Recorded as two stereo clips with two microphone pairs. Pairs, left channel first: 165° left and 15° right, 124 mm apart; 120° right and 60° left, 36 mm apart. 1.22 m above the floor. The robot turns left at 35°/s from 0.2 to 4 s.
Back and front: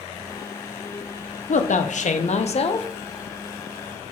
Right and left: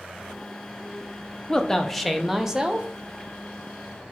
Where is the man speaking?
170° left, 0.5 m; by 2.9 s 120° left, 0.5 m.